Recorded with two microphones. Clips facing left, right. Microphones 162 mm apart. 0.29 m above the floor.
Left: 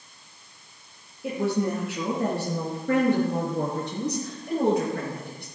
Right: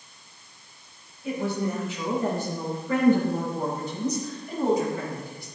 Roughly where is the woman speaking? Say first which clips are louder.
Left 2 dB; left.